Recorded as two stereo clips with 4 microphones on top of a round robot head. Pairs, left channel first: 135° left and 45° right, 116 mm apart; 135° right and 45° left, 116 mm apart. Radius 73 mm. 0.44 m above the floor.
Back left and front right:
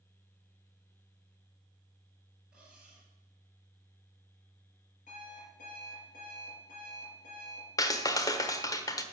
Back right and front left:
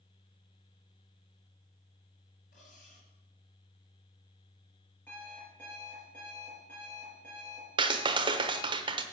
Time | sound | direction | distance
2.5 | cutlery clinking | 130° right | 5 m
5.1 | an alarm clock | 145° left | 6 m
7.8 | a clap | 80° left | 1.1 m